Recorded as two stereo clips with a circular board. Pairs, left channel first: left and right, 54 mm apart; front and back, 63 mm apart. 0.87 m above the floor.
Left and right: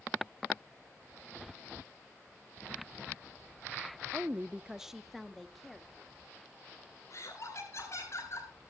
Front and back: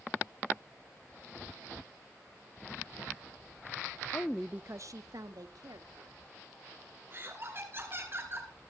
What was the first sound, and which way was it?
A woman speaking, 40° right.